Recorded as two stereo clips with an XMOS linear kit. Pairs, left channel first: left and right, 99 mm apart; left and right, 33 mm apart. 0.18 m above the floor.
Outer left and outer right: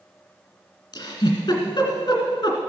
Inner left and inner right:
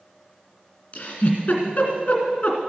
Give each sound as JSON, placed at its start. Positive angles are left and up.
{"t": 0.9, "sound": "a giggle", "side_deg": 45, "distance_m": 2.0}